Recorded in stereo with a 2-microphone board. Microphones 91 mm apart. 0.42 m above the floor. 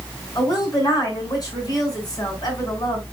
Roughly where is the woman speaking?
Left.